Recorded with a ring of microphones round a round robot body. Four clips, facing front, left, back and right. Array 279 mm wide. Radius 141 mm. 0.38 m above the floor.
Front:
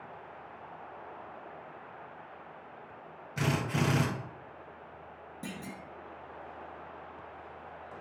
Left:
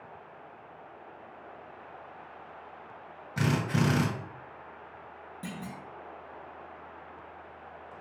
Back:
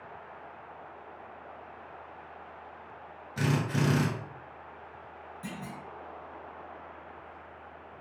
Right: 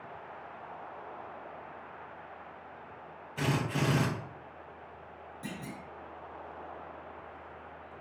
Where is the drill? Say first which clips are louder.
Left 3 dB, back 2 dB; 85° left, 2.0 m.